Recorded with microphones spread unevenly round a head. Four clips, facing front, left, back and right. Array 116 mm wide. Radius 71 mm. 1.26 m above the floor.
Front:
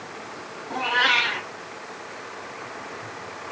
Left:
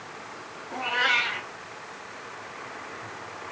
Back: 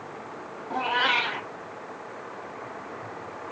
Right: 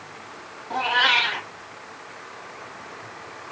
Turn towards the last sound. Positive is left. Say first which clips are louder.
# right 5 dB, front 2 dB
turn(degrees=-70)